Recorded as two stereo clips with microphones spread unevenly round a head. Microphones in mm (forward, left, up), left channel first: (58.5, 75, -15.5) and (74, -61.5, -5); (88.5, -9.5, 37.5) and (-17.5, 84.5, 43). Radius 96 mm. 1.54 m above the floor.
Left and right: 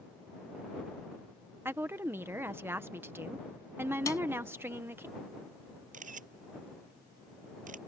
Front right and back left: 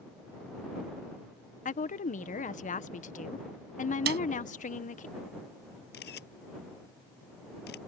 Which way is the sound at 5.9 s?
60° right.